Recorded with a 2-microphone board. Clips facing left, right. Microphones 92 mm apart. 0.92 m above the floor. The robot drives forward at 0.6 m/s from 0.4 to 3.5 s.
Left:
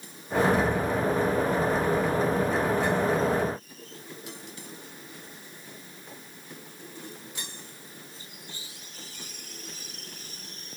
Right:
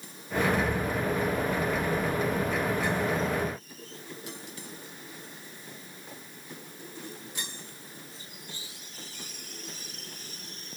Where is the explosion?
75° left (ahead or behind), 0.8 m; by 2.5 s 35° left (ahead or behind), 1.3 m.